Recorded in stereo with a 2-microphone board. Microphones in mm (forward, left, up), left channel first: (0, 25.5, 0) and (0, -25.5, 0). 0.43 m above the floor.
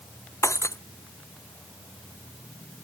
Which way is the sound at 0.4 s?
75° left (ahead or behind).